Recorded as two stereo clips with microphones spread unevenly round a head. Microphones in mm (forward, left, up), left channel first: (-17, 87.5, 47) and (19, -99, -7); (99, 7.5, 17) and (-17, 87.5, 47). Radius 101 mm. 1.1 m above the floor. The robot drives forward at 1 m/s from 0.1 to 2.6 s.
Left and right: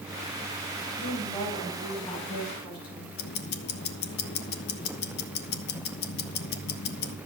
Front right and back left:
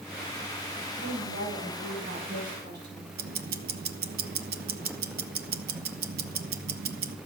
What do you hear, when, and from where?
1.0 s a woman speaking: 165° left, 5.5 m; by 3.1 s 170° left, 7 m
3.2 s ticking: 145° left, 1.3 m